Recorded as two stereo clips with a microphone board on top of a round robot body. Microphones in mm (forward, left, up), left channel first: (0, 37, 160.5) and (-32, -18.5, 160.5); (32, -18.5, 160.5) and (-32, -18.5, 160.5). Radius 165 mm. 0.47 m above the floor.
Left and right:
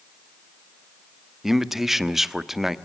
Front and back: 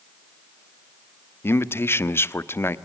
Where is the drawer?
No drawer in this recording.